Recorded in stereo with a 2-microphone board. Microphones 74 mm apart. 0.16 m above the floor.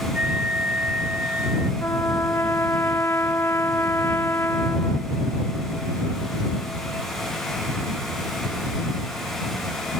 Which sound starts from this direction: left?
A trumpet, at 1.8 s.